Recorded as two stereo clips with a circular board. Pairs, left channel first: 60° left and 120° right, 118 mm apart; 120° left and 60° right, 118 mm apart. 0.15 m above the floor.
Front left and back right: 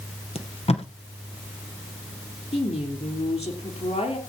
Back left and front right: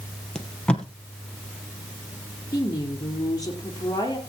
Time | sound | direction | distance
0.3 | tape being pulled | 40° left | 1.9 m
2.5 | a woman speaking | 65° left | 3.5 m